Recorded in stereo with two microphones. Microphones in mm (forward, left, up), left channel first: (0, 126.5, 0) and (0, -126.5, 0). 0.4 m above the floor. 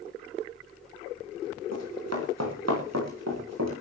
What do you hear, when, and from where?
1.7 s running footsteps: 75° right (ahead or behind), 9.5 m